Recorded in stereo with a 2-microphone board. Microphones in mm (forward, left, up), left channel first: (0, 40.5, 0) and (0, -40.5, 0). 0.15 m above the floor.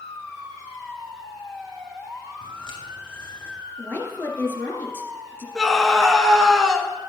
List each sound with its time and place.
2.4 s footsteps: 80° left, 5 m; by 3.5 s 85° left, 5 m
3.8 s a woman speaking: 25° left (ahead or behind), 2.5 m
5.5 s a scream: 10° left (ahead or behind), 1.8 m